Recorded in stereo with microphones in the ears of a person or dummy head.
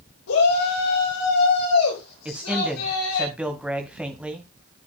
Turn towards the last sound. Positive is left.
turn(degrees=-5)  # may be behind; listen again after turning